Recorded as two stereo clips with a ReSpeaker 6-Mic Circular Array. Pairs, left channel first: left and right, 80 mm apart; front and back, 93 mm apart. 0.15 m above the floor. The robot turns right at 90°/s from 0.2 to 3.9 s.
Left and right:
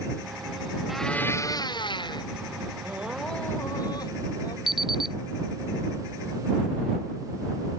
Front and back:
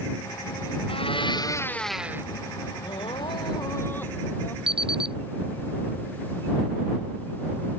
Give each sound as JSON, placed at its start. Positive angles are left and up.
{"t": 0.9, "sound": "a blender", "azimuth_deg": -5}
{"t": 2.8, "sound": "crying", "azimuth_deg": -30}
{"t": 4.7, "sound": "an alarm clock", "azimuth_deg": -175}